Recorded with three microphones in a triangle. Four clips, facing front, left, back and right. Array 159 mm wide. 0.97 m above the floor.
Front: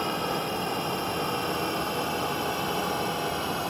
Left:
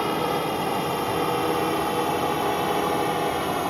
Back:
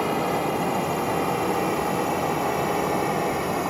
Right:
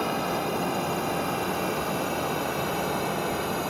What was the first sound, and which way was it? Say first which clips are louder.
A drone: left 3 dB, back 5 dB; 110° left.